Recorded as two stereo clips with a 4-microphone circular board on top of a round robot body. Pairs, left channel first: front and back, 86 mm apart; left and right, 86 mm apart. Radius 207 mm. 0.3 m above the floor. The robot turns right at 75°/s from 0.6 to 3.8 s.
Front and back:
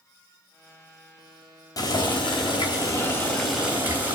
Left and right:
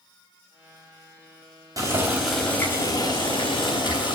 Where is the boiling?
45° right, 4 m; by 4.2 s 110° left, 4 m.